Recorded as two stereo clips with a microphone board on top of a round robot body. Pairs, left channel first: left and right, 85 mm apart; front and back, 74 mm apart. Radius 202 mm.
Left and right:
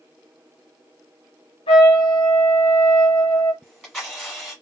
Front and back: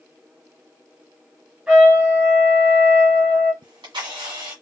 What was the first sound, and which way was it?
A trumpet, 100° left.